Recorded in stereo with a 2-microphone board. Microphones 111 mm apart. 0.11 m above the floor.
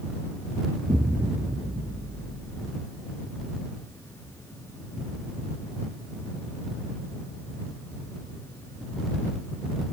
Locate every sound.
0.8 s an explosion: 20° right (ahead or behind)